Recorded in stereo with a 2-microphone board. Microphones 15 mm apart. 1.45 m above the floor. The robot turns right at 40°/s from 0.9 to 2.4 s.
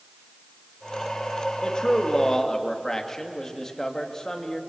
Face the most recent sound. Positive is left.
turn(degrees=150)